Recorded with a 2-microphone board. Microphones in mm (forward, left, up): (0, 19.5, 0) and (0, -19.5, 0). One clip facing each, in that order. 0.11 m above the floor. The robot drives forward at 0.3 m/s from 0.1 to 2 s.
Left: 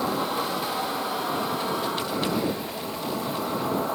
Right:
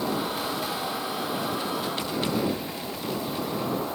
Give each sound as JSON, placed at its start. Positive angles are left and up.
{"t": 0.0, "sound": "an insect", "side_deg": 65, "distance_m": 8.0}